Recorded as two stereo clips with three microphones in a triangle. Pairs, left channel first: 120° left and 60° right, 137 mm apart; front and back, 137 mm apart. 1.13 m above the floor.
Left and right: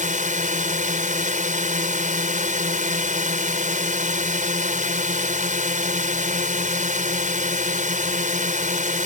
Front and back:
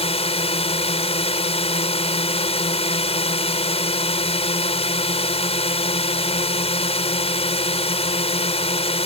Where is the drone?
40° right.